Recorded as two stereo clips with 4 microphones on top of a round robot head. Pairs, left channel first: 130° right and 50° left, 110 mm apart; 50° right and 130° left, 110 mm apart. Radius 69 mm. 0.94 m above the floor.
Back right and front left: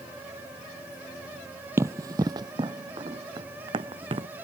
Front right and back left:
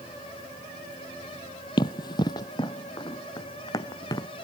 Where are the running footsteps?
10° right; by 4.3 s 5° left.